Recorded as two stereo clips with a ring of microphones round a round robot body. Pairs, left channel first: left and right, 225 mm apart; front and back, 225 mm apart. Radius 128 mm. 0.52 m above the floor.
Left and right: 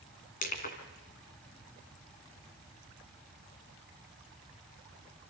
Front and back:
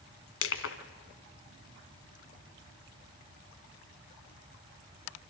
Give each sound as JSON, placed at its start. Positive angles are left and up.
{"t": 0.4, "sound": "crushing", "azimuth_deg": 30, "distance_m": 2.0}